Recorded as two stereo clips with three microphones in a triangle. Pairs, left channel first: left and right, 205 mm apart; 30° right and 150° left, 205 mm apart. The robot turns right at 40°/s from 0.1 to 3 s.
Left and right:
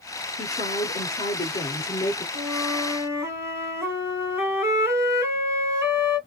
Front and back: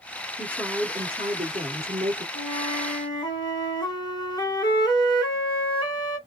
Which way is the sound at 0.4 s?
75° left.